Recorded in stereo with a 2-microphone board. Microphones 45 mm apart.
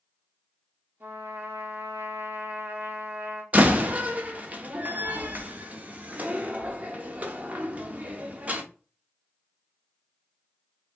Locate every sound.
1.0 s a trumpet: 55° right (ahead or behind), 0.9 m
3.5 s a door slam: 35° right (ahead or behind), 0.5 m